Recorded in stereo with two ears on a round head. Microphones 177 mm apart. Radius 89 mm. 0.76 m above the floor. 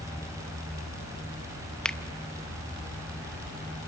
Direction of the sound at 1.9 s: 5° left (ahead or behind).